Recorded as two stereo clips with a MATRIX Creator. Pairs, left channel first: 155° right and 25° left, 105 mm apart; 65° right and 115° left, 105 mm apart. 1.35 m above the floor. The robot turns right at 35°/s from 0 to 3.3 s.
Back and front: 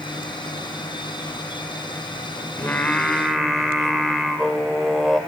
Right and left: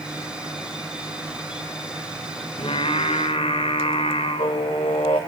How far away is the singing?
About 2 m.